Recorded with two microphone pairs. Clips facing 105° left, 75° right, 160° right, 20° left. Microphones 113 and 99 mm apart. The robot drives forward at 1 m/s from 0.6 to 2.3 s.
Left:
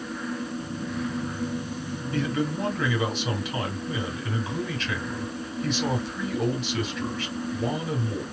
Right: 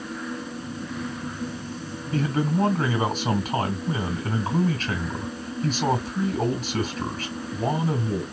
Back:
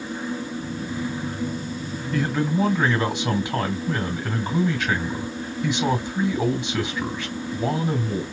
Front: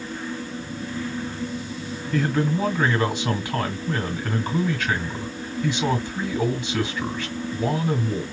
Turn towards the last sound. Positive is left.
turn(degrees=-100)